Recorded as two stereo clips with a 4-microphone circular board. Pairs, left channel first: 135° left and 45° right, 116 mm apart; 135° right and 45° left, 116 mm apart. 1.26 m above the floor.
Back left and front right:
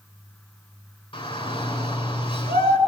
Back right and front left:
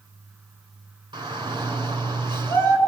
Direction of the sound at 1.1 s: 95° left.